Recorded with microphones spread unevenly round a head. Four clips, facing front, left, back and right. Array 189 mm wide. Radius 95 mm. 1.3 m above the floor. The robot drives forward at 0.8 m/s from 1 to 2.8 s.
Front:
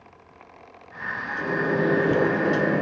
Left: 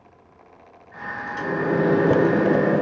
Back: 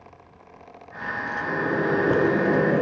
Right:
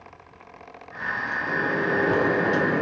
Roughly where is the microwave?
Ahead left.